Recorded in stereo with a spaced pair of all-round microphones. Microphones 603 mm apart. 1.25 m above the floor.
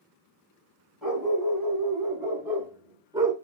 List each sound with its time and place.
1.0 s a dog barking: centre (ahead or behind), 3.5 m; by 3.3 s 5° right (ahead or behind), 1.6 m